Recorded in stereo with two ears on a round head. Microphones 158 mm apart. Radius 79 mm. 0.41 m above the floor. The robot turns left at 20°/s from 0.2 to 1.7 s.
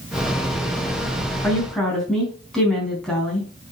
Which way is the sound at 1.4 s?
10° left (ahead or behind).